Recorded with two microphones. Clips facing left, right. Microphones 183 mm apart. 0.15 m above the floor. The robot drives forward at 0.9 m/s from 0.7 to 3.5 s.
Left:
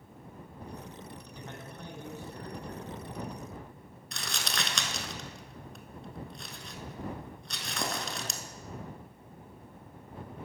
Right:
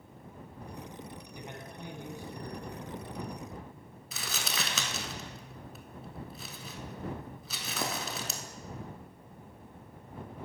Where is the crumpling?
5° right (ahead or behind), 0.7 m.